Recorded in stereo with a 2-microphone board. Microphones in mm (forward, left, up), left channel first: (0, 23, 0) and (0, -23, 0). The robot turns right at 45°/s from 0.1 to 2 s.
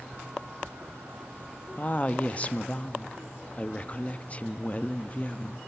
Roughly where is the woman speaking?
Left.